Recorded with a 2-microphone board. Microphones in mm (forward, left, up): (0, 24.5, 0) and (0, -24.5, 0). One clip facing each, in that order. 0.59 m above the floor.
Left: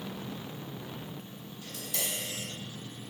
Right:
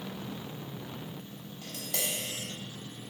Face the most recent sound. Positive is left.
turn(degrees=-65)  # may be behind; listen again after turning